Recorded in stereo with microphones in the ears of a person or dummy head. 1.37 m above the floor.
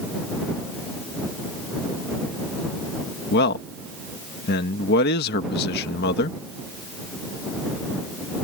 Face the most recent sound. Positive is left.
turn(degrees=55)  # may be behind; listen again after turning